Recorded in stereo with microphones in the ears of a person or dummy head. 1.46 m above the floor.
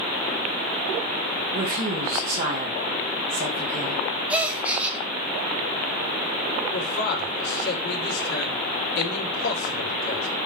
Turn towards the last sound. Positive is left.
turn(degrees=60)  # may be behind; listen again after turning